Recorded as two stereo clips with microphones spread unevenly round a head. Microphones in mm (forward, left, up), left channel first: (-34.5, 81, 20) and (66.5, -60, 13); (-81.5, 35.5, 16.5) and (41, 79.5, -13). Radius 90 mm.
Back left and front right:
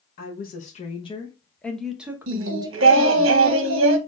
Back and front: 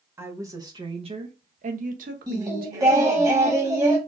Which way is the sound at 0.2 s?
90° left.